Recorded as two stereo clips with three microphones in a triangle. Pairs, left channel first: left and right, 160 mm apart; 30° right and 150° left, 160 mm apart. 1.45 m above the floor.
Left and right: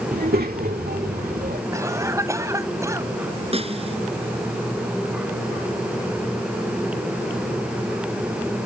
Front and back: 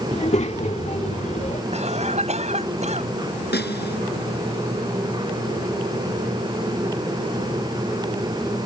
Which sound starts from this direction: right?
A child speaking, at 0.1 s.